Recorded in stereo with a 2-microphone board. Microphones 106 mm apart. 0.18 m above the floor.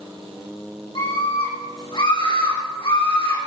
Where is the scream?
55° left (ahead or behind), 8.5 m.